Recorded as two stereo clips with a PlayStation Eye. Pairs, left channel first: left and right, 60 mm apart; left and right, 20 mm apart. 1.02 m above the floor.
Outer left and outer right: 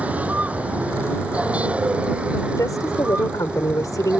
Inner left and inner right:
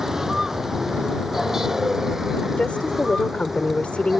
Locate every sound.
0.0 s a vehicle: 20° right (ahead or behind); by 4.2 s 15° right (ahead or behind)
2.6 s a woman speaking: 85° left